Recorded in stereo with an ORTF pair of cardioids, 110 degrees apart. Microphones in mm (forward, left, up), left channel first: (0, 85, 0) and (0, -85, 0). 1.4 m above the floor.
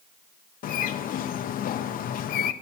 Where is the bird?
55° left, 0.7 m.